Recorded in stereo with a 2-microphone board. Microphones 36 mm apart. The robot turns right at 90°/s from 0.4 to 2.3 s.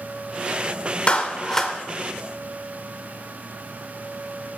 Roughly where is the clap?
Left.